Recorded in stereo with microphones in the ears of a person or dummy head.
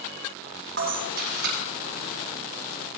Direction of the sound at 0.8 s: 60° right (ahead or behind).